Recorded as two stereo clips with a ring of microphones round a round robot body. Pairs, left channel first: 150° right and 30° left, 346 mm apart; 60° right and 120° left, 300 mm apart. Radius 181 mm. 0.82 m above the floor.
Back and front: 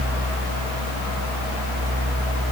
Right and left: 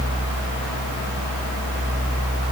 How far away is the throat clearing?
I don't hear throat clearing.